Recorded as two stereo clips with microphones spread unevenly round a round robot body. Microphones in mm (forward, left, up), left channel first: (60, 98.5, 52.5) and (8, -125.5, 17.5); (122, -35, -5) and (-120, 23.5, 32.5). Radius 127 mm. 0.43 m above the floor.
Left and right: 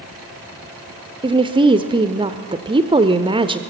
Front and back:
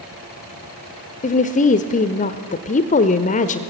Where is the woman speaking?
50° right, 1.0 m.